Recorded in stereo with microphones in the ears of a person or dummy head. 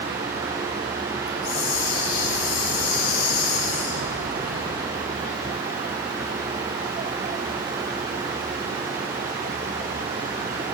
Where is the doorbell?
I don't hear a doorbell.